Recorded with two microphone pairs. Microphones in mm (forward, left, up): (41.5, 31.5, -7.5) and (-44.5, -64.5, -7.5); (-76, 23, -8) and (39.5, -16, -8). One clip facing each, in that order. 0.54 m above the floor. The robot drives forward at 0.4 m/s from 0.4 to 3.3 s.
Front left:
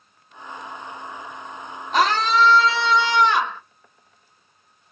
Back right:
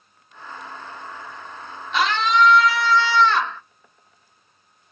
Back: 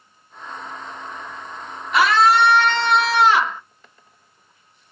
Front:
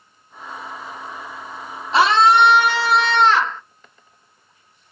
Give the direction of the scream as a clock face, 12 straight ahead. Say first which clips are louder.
Front left 1 dB, front 2 dB; 11 o'clock.